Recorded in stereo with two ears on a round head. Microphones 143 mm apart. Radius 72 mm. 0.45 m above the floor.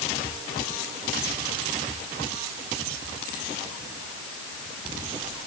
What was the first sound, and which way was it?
Only background noise.